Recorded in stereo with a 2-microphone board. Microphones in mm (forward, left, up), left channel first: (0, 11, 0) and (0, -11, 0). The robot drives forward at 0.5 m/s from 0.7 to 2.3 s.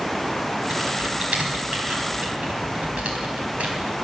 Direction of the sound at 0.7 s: 70° right (ahead or behind).